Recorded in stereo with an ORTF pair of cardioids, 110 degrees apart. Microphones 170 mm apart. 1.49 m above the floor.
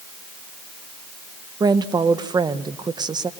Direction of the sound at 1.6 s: 25° right.